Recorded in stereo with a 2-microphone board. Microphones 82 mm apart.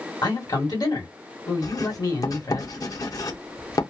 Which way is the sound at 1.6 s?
45° left (ahead or behind).